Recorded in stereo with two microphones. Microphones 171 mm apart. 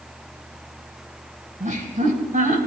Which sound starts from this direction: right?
Laughter, at 1.6 s.